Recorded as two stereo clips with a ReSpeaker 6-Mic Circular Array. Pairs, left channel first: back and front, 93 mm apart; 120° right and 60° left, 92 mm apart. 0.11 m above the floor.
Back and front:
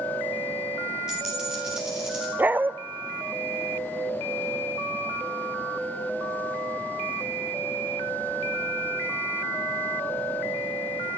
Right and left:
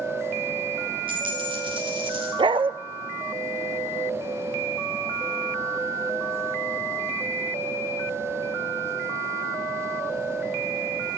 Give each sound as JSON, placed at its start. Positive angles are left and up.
{"t": 1.1, "sound": "a dropped coin", "azimuth_deg": 85, "distance_m": 7.5}
{"t": 2.4, "sound": "a dog barking", "azimuth_deg": 70, "distance_m": 0.6}